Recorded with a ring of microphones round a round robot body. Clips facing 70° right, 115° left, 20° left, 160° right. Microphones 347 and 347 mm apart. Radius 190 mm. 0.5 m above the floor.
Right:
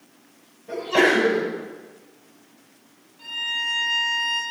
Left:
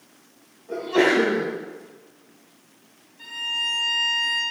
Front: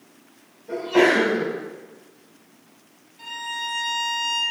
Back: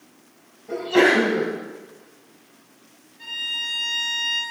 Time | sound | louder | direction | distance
0.7 | a sneeze | even, even | 70° right | 4.5 m
3.2 | a violin | even, front 9 dB | 25° left | 3.5 m